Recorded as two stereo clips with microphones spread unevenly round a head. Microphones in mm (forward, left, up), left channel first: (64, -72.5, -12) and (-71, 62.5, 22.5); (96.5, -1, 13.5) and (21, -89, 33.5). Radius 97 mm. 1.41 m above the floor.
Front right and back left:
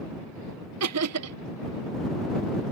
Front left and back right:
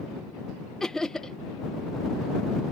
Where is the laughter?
135° left.